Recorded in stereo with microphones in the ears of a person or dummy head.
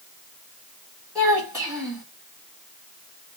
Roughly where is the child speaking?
Centre.